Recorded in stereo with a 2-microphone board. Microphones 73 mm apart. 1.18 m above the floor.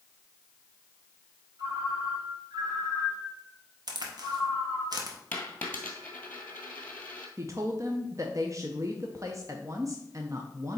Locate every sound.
1.6 s a ringtone: 65° right (ahead or behind), 2.5 m
3.9 s a crack: 65° right (ahead or behind), 1.1 m
5.3 s a dropped coin: 20° left (ahead or behind), 1.5 m
7.4 s a woman speaking: 45° right (ahead or behind), 0.7 m